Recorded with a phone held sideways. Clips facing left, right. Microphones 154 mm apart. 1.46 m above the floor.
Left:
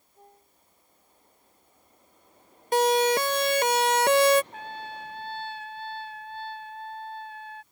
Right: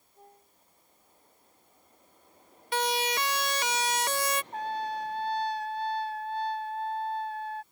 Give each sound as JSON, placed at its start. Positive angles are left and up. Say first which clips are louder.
{"t": 2.7, "sound": "a siren", "louder": "left 9 dB", "side_deg": 40}
{"t": 4.5, "sound": "a trumpet", "louder": "right 6 dB", "side_deg": -40}